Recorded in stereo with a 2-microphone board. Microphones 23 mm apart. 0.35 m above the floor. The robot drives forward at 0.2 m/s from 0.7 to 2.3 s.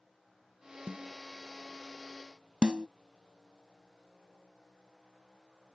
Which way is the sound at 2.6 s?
45° right (ahead or behind).